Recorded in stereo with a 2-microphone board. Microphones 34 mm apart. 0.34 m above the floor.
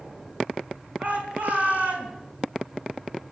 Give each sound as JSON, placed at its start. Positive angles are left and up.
{"t": 1.0, "sound": "a shout", "side_deg": -45, "distance_m": 4.5}